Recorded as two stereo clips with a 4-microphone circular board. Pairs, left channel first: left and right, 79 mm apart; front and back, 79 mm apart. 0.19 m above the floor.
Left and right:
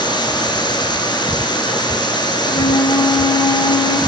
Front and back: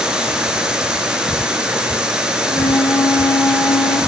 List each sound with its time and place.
0.0 s running water: 100° left, 2.5 m
2.4 s a flute: 55° left, 2.5 m